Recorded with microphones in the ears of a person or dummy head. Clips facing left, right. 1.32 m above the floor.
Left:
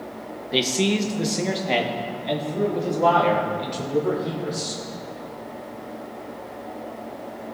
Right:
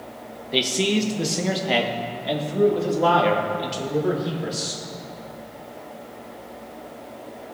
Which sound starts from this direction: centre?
A man speaking, at 0.5 s.